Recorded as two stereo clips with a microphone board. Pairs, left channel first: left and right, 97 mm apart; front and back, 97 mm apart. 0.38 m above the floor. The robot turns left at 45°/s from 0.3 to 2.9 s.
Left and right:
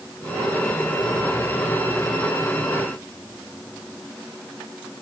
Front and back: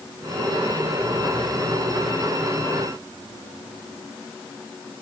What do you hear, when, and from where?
Only background noise.